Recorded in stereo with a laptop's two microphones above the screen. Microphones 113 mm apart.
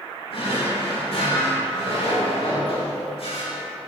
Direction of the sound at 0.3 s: 60° left (ahead or behind).